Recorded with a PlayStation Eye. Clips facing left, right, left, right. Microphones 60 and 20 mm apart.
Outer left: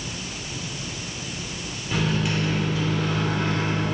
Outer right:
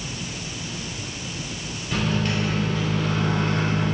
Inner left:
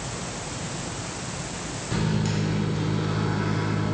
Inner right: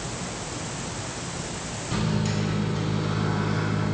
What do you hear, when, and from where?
1.9 s a microwave: 10° left (ahead or behind), 1.7 m